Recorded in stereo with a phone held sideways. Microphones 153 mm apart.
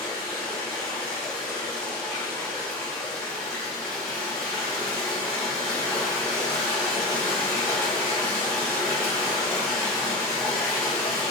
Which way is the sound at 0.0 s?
5° left (ahead or behind).